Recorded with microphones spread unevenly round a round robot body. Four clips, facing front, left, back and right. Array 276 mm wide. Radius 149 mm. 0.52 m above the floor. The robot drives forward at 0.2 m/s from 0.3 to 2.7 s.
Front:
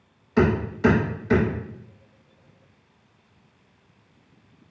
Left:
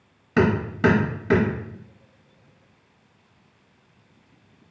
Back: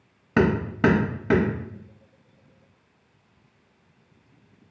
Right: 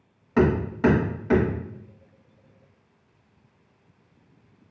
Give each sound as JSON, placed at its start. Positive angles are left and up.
{"t": 0.4, "sound": "hammering", "azimuth_deg": 160, "distance_m": 0.9}